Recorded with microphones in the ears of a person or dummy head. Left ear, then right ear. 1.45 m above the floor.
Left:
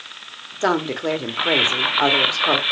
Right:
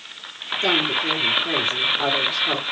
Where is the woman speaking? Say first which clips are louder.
Right 1 dB; 45° left (ahead or behind), 1.1 m.